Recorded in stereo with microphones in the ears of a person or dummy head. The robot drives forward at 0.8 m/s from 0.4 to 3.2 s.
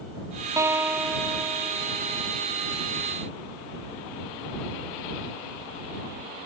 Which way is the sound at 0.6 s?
20° right (ahead or behind).